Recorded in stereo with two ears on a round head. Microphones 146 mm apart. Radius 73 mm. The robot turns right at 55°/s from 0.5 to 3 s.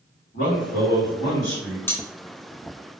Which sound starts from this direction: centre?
Cutlery clinking, at 1.9 s.